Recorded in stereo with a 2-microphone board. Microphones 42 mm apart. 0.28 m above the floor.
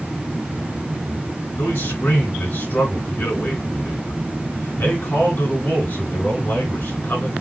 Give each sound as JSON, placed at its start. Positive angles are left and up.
{"t": 1.6, "sound": "a man speaking", "side_deg": 65, "distance_m": 3.5}